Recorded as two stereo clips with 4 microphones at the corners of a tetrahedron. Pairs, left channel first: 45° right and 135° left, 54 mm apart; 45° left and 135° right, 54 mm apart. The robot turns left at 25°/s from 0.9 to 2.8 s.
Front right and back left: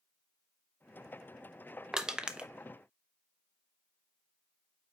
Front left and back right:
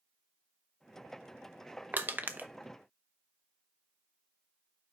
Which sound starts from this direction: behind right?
Crushing, at 1.9 s.